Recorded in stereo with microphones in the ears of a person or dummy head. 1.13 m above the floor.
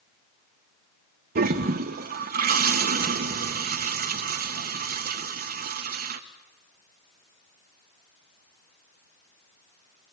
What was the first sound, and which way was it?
A toilet flushing, 45° right (ahead or behind).